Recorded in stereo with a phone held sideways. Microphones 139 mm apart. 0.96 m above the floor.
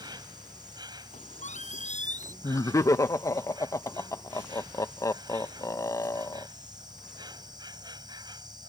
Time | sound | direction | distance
0.0 | an insect | 30° right (ahead or behind) | ?
1.1 | a squeak | 60° left (ahead or behind) | ?
2.4 | laughter | 20° left (ahead or behind) | ?